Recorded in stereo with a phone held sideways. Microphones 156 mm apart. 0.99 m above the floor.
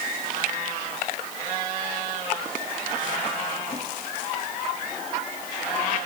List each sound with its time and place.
Only background noise.